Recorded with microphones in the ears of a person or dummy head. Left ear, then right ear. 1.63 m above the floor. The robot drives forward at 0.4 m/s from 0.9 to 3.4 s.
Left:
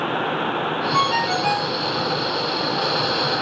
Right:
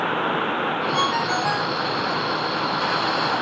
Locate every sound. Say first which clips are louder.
0.9 s a ringtone: left 4 dB; 20° left (ahead or behind), 1.2 m; by 1.8 s 15° left (ahead or behind), 1.4 m